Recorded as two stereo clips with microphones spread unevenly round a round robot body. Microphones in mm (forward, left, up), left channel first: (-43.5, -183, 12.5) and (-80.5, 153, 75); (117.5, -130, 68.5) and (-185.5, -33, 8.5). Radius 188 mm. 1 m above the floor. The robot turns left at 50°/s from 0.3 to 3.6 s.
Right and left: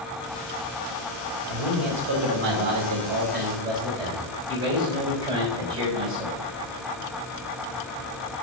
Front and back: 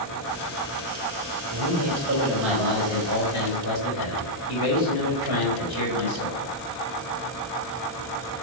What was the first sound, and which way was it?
A man speaking, 125° left.